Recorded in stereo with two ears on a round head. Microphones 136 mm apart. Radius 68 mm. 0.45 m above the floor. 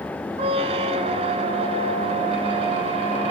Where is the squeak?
40° right (ahead or behind), 1.1 m.